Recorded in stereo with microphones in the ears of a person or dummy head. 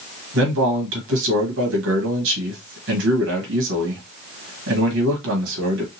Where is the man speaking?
65° right (ahead or behind), 1.7 m.